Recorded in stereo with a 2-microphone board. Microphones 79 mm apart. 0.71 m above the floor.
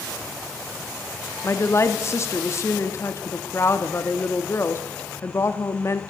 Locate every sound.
1.4 s a woman speaking: 35° left (ahead or behind), 0.8 m